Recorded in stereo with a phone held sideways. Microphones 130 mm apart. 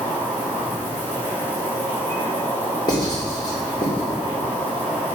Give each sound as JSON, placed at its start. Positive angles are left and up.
{"t": 0.0, "sound": "an insect", "side_deg": 15, "distance_m": 3.0}
{"t": 2.9, "sound": "writing", "side_deg": 35, "distance_m": 3.5}